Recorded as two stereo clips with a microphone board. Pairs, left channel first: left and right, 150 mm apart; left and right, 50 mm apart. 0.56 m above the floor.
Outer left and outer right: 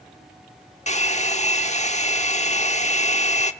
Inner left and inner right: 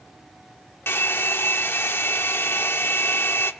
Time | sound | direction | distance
0.9 | a hair dryer | 50° left (ahead or behind) | 1.0 m